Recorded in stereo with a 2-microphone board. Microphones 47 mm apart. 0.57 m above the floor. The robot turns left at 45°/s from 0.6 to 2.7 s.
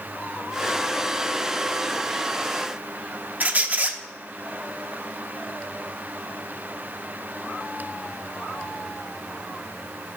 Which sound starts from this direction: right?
A squeak, at 3.4 s.